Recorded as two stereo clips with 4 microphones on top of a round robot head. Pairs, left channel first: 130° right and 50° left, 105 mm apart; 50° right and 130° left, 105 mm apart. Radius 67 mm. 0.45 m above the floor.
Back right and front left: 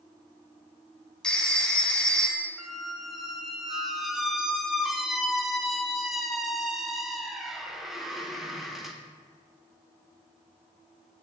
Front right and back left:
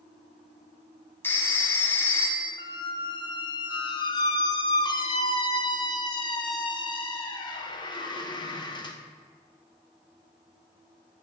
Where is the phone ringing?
55° right, 0.8 m.